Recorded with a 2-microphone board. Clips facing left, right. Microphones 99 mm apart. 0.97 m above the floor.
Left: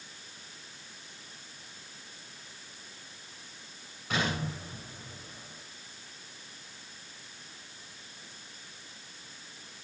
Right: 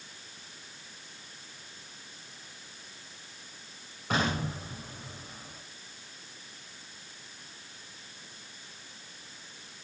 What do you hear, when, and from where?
4.1 s an explosion: 50° right (ahead or behind), 6.5 m